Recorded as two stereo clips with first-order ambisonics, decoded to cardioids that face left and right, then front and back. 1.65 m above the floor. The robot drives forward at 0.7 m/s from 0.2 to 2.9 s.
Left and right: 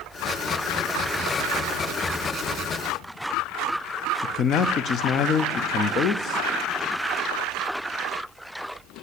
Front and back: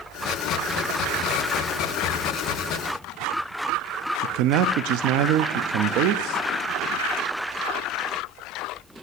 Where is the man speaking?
150° left, 0.5 m.